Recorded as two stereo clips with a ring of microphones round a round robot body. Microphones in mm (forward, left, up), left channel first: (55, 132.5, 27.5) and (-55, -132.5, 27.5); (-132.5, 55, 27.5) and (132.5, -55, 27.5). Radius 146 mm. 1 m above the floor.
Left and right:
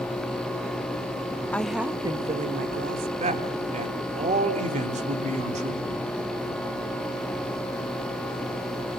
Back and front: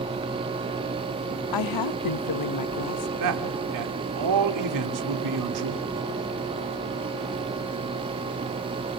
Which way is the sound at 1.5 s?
150° left.